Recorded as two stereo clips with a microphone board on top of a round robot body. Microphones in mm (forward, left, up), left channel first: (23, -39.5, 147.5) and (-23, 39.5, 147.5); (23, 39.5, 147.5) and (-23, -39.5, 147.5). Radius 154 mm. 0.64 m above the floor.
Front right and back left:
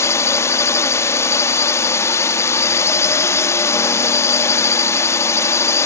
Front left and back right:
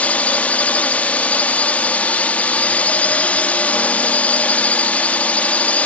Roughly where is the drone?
Ahead.